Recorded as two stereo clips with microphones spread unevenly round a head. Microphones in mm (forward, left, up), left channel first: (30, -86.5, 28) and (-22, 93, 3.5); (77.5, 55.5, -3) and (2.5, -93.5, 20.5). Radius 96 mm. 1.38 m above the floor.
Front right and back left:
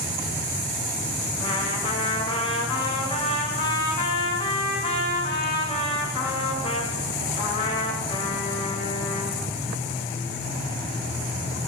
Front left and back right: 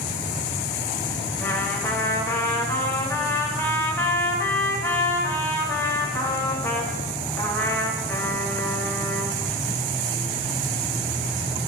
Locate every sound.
1.4 s a trumpet: 10° right, 1.7 m